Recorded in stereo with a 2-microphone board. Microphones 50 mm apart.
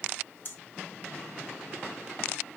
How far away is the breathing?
About 1.1 m.